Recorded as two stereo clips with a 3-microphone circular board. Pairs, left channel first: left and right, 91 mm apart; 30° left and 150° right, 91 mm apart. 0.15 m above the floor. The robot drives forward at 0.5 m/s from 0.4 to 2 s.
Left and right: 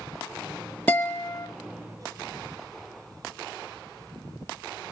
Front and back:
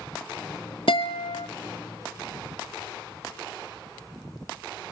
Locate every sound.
0.9 s a guitar: 20° left, 1.2 m; by 1.5 s 25° left, 1.0 m